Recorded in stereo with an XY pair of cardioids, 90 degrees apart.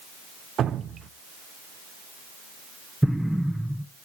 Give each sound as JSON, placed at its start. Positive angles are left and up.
{"t": 0.6, "sound": "dripping", "azimuth_deg": -70, "distance_m": 0.8}
{"t": 3.0, "sound": "an explosion", "azimuth_deg": 0, "distance_m": 0.8}